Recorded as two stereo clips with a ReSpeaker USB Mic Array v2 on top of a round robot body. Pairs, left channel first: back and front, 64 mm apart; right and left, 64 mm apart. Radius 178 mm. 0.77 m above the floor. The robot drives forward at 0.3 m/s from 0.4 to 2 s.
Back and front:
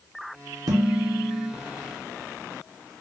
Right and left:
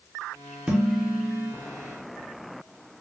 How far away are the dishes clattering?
About 0.9 m.